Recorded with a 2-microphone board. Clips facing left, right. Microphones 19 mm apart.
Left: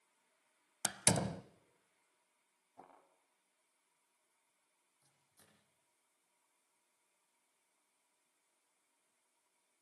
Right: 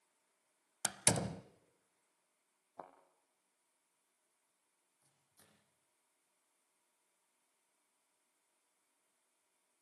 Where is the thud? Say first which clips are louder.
Right 6 dB; 55° right (ahead or behind), 5.5 m.